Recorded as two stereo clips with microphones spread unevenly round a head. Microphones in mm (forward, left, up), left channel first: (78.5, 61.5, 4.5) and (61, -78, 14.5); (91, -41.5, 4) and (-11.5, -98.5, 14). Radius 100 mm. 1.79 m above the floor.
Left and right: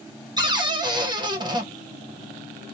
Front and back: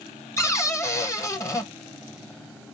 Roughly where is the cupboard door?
Ahead right.